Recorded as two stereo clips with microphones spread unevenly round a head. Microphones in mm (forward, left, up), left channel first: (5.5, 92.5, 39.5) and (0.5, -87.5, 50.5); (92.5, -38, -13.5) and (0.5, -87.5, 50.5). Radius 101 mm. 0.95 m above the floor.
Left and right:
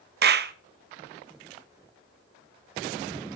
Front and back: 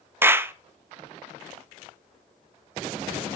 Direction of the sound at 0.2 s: 65° right.